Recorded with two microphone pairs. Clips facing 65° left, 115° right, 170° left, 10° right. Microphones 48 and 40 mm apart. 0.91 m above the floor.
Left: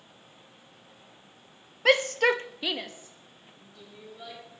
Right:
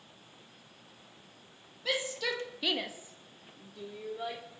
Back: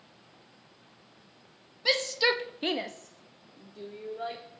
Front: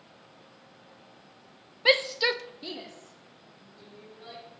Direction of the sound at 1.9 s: 45° left.